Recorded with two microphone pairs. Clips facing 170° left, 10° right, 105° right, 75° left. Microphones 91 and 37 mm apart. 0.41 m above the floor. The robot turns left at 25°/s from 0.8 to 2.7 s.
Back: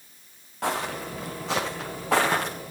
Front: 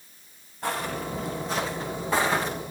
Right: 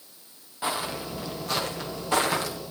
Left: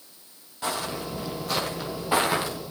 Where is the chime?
No chime in this recording.